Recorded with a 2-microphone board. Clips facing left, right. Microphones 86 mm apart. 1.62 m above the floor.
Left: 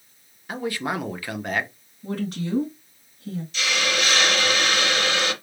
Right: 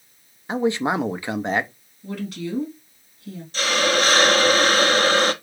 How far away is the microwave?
No microwave in this recording.